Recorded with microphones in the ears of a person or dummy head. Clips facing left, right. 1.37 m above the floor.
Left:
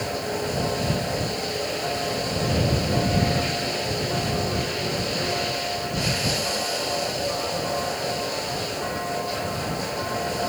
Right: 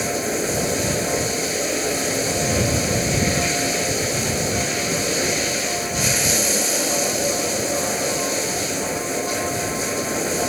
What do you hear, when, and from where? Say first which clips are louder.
0.0 s running water: right 4 dB; 45° right (ahead or behind)